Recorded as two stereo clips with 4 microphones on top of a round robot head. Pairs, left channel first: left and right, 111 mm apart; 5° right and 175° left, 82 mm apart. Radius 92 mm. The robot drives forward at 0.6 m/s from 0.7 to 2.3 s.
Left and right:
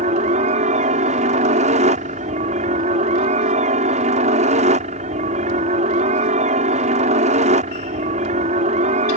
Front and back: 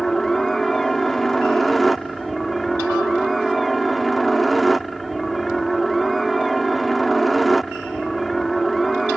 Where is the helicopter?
95° right.